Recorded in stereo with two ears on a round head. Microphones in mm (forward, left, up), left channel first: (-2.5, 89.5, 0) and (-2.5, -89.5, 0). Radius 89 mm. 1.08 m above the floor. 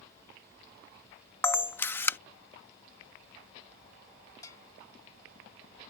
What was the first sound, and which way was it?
A camera shutter, 10° left (ahead or behind).